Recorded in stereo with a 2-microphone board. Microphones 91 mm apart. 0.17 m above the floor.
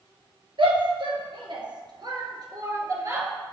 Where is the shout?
65° right (ahead or behind), 2.5 m; by 3.3 s 35° right (ahead or behind), 2.5 m.